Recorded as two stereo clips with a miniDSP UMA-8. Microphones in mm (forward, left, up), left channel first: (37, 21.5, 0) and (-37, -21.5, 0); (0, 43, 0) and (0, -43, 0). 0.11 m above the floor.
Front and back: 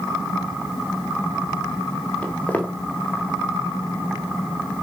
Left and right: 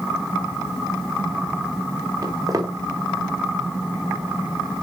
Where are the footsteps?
45° right, 3 m.